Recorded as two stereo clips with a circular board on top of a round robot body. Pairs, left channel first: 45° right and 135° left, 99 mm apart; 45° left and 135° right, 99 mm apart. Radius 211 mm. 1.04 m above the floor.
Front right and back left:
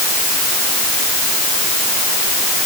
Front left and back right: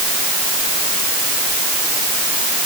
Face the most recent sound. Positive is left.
No sound to turn to.